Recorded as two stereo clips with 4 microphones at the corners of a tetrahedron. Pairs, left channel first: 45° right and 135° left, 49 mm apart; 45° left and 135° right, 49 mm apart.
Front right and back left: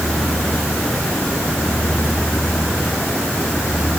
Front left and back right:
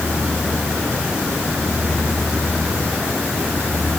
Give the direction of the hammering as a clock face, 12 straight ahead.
No hammering in this recording.